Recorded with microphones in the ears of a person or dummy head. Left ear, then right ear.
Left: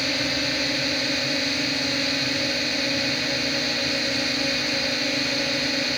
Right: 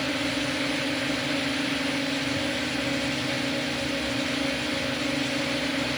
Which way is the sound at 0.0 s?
40° left (ahead or behind).